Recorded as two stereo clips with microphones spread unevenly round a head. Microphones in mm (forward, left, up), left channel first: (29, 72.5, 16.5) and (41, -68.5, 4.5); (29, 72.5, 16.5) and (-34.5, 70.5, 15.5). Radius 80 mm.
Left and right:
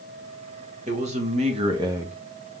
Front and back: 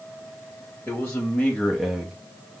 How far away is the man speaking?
About 1.2 m.